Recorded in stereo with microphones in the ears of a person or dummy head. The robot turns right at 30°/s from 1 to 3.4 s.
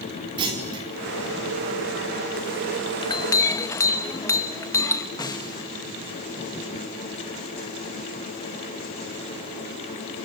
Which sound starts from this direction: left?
A clink, at 3.0 s.